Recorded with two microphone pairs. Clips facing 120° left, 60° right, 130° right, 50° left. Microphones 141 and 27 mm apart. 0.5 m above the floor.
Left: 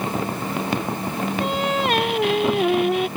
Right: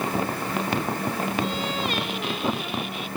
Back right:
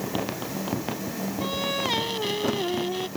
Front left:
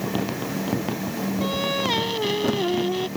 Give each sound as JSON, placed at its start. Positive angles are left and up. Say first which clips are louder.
{"t": 1.4, "sound": "singing", "louder": "left 5 dB, front left 2 dB", "azimuth_deg": 130}